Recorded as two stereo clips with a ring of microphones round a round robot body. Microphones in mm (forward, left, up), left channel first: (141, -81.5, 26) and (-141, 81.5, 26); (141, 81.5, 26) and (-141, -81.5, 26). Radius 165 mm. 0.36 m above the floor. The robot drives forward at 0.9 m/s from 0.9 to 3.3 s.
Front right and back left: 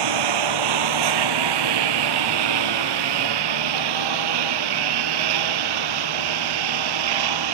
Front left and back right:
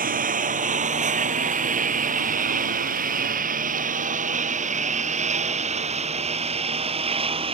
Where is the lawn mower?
145° left; by 7.5 s 135° left.